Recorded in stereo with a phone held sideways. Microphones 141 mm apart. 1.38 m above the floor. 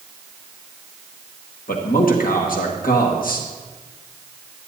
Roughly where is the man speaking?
Left.